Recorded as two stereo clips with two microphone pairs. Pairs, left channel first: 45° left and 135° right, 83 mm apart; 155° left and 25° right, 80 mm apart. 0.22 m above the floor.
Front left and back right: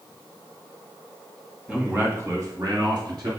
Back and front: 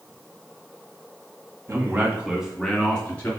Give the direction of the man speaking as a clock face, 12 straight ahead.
2 o'clock.